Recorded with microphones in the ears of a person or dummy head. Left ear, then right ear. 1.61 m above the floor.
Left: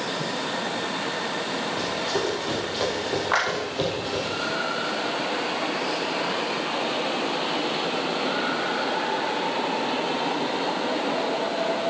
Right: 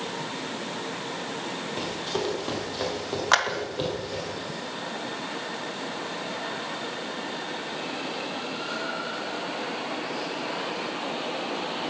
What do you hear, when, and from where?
1.8 s running footsteps: 20° right (ahead or behind), 4 m; by 4.3 s 10° left (ahead or behind), 3.5 m
3.3 s a clap: 85° right, 2 m